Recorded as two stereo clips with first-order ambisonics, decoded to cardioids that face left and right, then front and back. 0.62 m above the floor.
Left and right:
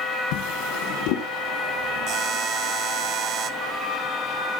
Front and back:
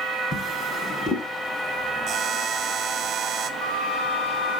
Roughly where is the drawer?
Left.